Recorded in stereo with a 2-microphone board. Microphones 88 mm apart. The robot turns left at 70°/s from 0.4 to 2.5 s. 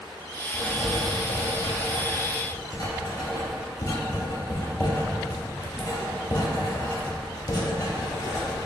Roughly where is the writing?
Centre.